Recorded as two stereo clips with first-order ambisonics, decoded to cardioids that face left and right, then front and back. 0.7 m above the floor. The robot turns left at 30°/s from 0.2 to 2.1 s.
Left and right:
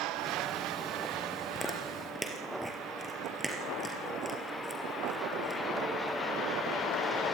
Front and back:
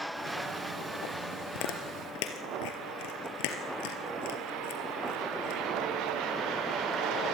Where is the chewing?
15° left, 3.5 m; by 5.6 s 5° right, 3.5 m.